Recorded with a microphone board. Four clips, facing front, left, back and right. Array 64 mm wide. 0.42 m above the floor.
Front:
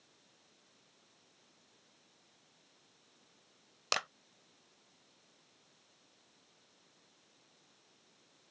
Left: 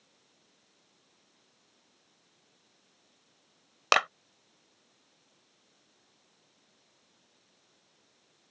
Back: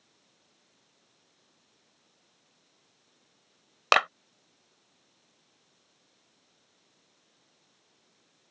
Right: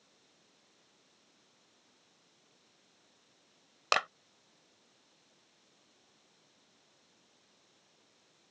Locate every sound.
3.9 s a clap: 155° left